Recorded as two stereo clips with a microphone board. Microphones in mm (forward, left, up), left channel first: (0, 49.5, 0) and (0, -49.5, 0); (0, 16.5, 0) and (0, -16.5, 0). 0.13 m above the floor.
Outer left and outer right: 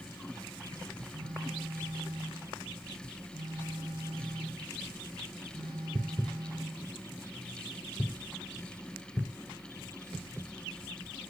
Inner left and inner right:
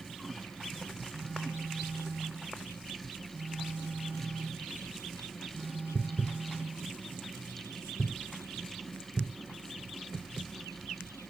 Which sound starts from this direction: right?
A phone buzzing, at 1.1 s.